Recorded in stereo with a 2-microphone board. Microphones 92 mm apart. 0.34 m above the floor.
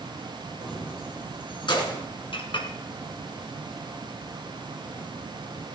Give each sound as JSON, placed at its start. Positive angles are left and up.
{"t": 0.6, "sound": "keys jangling", "side_deg": 75, "distance_m": 3.5}
{"t": 2.3, "sound": "a clink", "side_deg": 70, "distance_m": 1.9}